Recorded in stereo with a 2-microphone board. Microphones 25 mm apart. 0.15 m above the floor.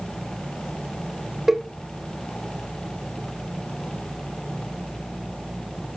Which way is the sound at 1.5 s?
15° right (ahead or behind).